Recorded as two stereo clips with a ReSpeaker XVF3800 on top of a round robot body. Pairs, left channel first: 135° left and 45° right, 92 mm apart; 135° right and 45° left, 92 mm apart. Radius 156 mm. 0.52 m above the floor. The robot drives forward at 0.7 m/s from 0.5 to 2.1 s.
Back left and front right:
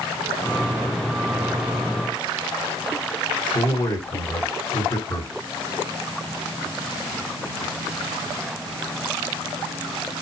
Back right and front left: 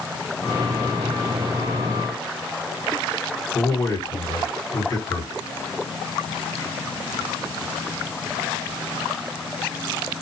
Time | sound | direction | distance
3.5 | a man speaking | 170° left | 3 m